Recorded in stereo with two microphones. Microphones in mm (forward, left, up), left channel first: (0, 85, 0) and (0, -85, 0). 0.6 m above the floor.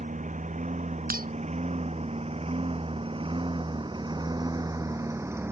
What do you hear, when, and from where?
0.0 s a lawn mower: 50° right (ahead or behind); by 5.5 s 15° right (ahead or behind)
1.1 s breaking glass: 60° right (ahead or behind)